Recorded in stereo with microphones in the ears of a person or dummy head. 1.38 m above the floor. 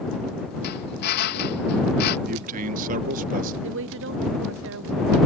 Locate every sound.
0.6 s a drill: 55° left (ahead or behind)
2.3 s a man speaking: 45° right (ahead or behind)
3.6 s a woman speaking: 65° right (ahead or behind)